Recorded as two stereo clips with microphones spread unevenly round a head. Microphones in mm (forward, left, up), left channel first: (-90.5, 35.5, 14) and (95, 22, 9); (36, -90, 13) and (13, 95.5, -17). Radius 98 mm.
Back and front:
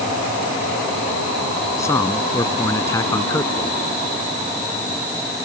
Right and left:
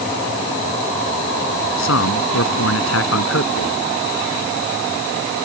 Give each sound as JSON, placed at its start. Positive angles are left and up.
{"t": 1.8, "sound": "a man speaking", "azimuth_deg": -105}